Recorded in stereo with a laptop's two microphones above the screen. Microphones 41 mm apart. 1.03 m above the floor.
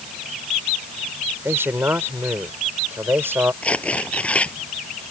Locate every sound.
1.4 s a man speaking: 80° right; by 3.5 s 65° right (ahead or behind)
3.6 s tearing paper: 35° left (ahead or behind)